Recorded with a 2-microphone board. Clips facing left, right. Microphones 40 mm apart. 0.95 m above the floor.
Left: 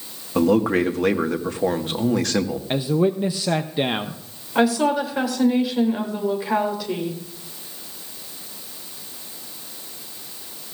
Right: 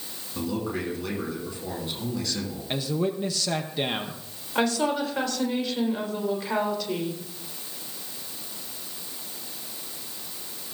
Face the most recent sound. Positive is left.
turn(degrees=10)  # may be behind; listen again after turning